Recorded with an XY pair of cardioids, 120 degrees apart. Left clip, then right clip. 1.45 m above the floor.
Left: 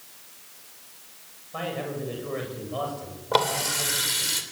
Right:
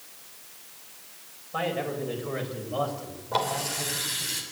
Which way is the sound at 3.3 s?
50° left.